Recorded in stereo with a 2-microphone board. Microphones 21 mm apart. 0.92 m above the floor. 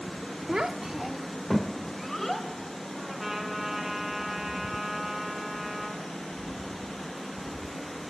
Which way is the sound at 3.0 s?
5° right (ahead or behind).